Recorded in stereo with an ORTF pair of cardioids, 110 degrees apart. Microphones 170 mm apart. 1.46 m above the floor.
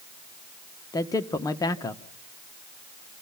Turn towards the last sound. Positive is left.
turn(degrees=20)